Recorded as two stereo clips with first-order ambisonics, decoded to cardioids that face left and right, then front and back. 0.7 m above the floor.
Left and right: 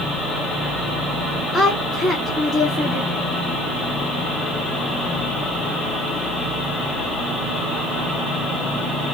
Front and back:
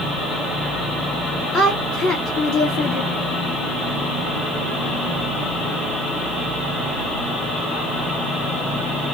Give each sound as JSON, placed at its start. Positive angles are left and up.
{"t": 1.5, "sound": "a woman speaking", "azimuth_deg": 5, "distance_m": 1.8}